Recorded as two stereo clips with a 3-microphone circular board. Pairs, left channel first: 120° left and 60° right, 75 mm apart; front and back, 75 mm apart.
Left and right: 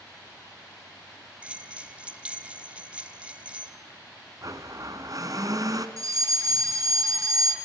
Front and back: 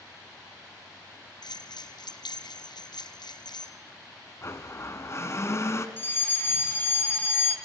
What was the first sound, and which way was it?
A bell, 15° left.